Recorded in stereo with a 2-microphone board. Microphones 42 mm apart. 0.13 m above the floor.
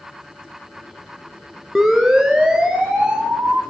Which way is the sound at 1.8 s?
10° right (ahead or behind).